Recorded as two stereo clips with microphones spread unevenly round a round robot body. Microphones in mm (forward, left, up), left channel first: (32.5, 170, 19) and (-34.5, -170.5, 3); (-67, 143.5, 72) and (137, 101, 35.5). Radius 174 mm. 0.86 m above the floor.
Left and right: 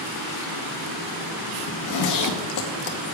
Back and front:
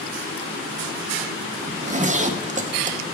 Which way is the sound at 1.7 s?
40° left.